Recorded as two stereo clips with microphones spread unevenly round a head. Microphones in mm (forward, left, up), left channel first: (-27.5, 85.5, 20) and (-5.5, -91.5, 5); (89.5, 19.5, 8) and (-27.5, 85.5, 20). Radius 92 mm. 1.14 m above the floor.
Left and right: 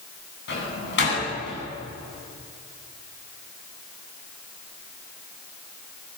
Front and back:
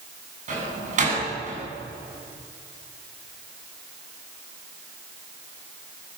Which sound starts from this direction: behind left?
A door slam, at 0.5 s.